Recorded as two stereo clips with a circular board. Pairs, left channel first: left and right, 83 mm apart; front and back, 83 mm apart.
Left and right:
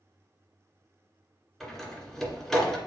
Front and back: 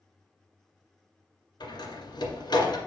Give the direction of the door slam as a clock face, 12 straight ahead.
12 o'clock.